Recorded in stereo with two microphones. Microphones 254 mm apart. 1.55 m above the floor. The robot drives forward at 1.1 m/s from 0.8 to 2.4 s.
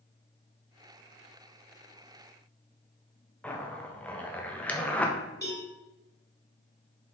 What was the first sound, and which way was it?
A zipper, 5° left (ahead or behind).